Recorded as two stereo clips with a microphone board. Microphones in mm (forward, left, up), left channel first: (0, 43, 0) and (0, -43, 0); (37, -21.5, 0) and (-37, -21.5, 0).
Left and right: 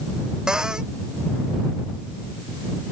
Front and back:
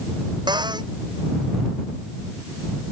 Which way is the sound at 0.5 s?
170° right.